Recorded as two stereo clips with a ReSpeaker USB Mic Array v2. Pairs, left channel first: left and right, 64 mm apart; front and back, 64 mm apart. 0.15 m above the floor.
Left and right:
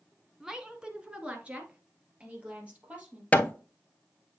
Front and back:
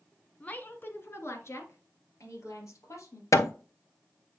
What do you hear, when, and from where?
0.4 s a woman speaking: 20° right, 1.2 m; by 3.2 s 25° right, 4 m
3.3 s hammering: 25° left, 0.7 m